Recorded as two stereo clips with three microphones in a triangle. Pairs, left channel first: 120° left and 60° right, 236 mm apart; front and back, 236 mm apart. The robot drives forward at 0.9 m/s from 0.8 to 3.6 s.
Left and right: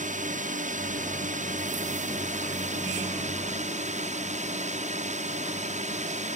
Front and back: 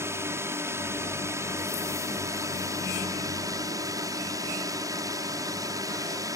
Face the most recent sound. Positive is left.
turn(degrees=-110)